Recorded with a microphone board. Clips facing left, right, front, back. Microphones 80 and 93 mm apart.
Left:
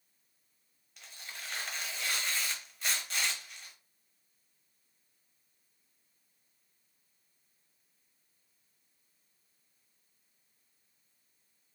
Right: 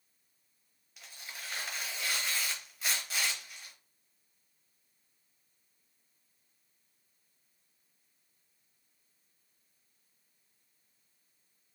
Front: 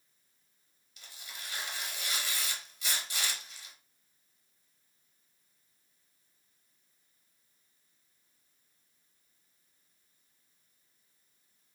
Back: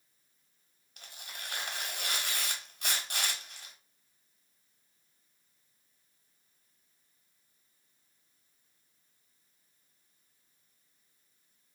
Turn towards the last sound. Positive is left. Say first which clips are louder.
# even, back 2 dB
turn(degrees=-175)